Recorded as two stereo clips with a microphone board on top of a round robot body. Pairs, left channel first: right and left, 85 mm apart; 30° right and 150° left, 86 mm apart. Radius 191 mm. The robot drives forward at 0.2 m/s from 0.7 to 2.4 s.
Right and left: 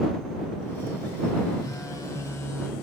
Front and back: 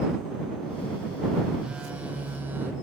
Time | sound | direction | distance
1.6 | a phone buzzing | 130° right | 0.6 m